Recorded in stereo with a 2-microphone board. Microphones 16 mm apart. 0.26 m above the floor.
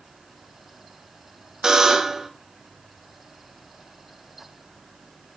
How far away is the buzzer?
About 0.7 m.